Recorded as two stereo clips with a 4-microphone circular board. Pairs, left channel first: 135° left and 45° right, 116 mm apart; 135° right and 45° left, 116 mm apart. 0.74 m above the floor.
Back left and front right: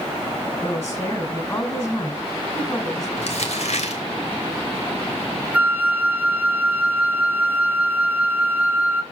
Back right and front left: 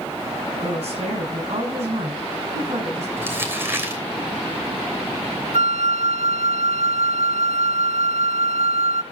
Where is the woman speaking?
70° left, 6 m.